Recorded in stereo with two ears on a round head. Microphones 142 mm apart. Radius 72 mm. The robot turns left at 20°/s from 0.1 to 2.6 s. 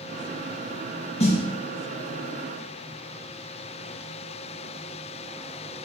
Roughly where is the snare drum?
Left.